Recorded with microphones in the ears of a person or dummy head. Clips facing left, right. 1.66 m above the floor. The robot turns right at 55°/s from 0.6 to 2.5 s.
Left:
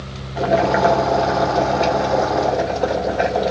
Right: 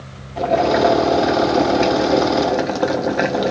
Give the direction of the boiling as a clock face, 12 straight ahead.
6 o'clock.